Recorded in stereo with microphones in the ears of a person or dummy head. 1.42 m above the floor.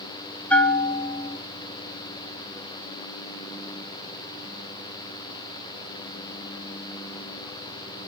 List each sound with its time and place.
0.5 s a bell: 10° left (ahead or behind), 1.2 m